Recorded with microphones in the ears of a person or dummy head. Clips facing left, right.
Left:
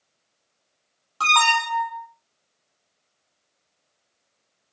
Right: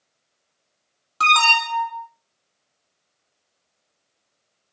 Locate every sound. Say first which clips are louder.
1.2 s an alarm: right 1 dB; 30° right (ahead or behind), 1.3 m